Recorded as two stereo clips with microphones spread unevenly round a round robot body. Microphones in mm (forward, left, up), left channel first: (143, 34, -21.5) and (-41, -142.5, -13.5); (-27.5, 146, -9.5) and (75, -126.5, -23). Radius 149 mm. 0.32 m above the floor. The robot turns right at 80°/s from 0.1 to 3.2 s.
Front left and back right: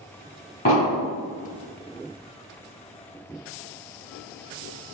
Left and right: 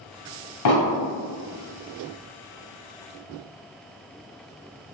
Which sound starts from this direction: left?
An explosion, at 0.7 s.